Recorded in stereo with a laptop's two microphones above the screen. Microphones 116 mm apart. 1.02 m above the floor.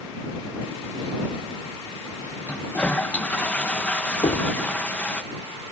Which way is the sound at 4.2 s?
80° left.